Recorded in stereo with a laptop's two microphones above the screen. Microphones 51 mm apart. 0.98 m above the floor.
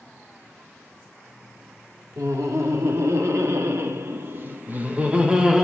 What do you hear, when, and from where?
2.2 s laughter: 80° right, 2.5 m; by 5.7 s 10° right (ahead or behind), 1.7 m